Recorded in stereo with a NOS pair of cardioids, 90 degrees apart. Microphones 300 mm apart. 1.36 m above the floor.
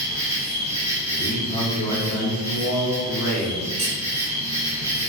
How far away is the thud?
No thud in this recording.